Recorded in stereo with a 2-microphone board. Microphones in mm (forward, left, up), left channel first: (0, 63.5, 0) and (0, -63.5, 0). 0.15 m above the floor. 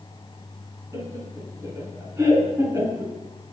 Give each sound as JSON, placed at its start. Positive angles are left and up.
{"t": 0.9, "sound": "laughter", "side_deg": -25, "distance_m": 1.5}